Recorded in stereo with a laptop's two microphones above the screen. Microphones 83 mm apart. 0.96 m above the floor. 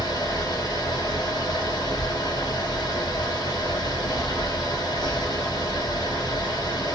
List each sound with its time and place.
0.0 s a fan: 55° left (ahead or behind), 0.8 m